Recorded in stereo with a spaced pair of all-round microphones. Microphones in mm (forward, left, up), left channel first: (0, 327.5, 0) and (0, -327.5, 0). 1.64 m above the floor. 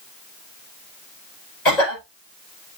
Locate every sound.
1.6 s a cough: 85° left, 6.5 m